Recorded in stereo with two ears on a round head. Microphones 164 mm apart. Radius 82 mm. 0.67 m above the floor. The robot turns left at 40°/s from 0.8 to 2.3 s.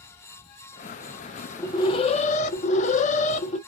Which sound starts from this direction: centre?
An alarm, at 1.6 s.